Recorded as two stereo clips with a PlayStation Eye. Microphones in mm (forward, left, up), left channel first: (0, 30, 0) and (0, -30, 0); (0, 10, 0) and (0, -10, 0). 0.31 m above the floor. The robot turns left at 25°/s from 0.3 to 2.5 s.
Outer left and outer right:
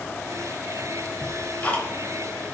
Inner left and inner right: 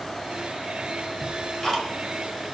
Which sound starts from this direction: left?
Ticking, at 1.2 s.